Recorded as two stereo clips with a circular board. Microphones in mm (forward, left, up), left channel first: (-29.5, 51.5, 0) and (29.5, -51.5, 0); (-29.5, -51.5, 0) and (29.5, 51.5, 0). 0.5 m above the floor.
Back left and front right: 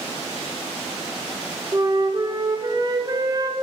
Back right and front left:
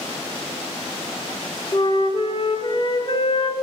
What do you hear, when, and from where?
1.7 s a flute: 100° right, 0.9 m